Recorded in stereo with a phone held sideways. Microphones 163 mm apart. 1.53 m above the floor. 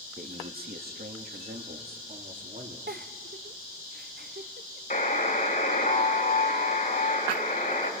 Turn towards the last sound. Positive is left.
turn(degrees=55)  # may be behind; listen again after turning